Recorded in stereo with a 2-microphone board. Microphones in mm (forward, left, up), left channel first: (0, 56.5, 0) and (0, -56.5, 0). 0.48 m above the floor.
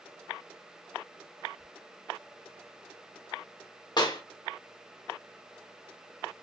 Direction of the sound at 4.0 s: 45° left (ahead or behind).